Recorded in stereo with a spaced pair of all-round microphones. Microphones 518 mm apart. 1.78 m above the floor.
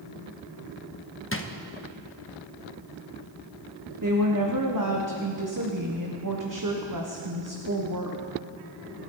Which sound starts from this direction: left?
A drawer, at 1.3 s.